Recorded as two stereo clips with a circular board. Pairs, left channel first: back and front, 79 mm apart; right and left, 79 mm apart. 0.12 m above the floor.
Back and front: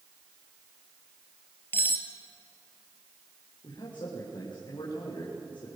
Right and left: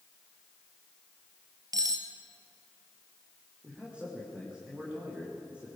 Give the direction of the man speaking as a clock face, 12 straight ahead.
6 o'clock.